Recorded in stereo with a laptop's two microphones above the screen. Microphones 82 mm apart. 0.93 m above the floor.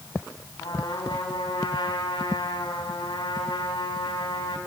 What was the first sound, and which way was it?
A trumpet, 75° left (ahead or behind).